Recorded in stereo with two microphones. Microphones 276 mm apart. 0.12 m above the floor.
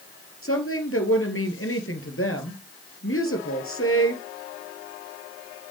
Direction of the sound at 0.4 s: 55° left (ahead or behind).